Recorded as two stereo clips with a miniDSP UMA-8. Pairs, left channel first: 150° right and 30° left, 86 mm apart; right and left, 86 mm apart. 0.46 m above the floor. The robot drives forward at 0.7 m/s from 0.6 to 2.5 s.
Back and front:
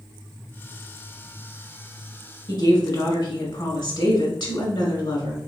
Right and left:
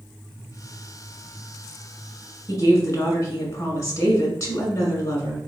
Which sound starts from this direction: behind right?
A woman speaking, at 2.5 s.